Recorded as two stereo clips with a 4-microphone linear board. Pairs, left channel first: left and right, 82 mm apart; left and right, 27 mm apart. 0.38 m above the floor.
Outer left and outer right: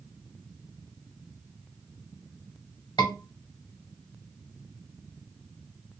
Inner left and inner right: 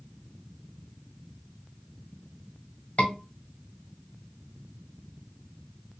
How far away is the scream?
About 1.7 m.